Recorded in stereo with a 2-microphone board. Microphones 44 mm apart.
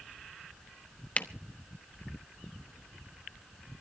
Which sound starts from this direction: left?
A camera shutter, at 1.2 s.